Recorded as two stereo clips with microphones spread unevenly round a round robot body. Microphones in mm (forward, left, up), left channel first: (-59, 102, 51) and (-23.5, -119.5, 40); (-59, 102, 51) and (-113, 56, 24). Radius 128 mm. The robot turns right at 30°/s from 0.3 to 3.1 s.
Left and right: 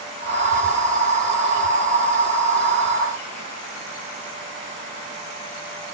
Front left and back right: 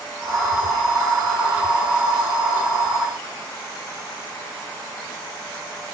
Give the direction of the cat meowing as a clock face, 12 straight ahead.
No cat meowing in this recording.